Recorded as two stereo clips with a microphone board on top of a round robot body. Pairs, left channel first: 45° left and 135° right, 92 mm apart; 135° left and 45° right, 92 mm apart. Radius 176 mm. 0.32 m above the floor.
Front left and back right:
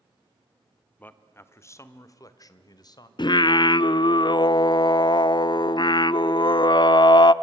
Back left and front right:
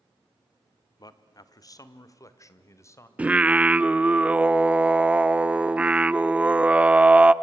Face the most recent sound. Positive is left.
turn(degrees=25)